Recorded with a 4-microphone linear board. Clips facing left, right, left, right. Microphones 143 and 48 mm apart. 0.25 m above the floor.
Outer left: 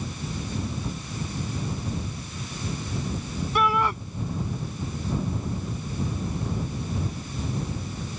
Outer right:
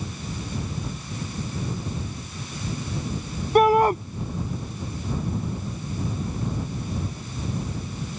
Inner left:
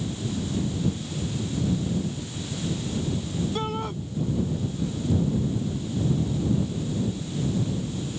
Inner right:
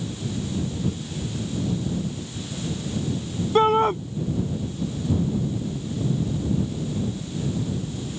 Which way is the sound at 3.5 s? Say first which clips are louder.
Outer right 8 dB, inner right 12 dB; 45° right (ahead or behind).